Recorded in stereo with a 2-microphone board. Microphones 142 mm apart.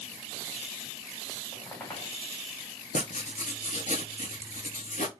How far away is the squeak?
About 2 m.